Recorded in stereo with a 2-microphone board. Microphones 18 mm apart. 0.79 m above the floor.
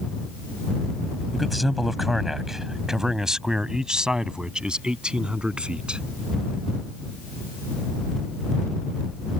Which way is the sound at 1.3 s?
5° left (ahead or behind).